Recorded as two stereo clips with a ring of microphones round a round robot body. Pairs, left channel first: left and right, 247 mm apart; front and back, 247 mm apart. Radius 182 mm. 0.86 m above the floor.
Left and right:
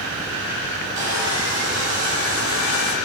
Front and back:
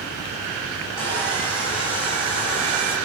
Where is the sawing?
95° right, 6.5 m.